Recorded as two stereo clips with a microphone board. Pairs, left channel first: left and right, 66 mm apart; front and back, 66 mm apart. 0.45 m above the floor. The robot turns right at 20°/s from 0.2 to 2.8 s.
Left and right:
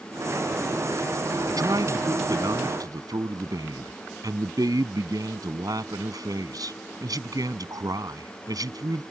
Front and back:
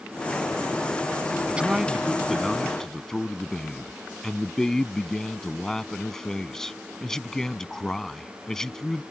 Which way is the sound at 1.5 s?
105° right.